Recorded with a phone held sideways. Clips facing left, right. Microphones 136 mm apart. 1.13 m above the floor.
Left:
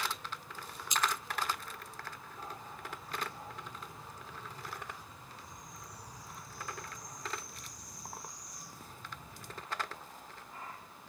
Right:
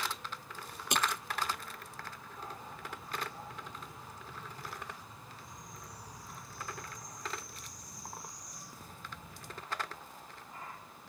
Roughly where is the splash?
Right.